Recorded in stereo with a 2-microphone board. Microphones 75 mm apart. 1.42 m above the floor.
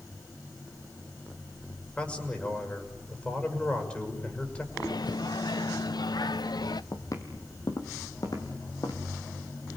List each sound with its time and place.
2.0 s a man speaking: 15° left (ahead or behind), 6 m
4.7 s a microwave: 70° left (ahead or behind), 0.6 m
6.9 s footsteps: 50° left (ahead or behind), 2.5 m; by 9.0 s 60° left (ahead or behind), 3.5 m